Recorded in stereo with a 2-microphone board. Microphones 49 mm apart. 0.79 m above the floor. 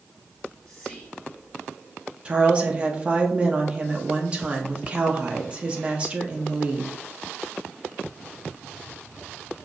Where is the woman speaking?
25° right (ahead or behind), 0.6 m.